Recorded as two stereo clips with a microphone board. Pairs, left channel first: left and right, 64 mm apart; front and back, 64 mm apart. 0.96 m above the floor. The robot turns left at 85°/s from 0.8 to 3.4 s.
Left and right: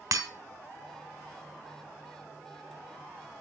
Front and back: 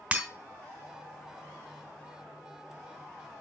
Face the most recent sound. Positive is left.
turn(degrees=35)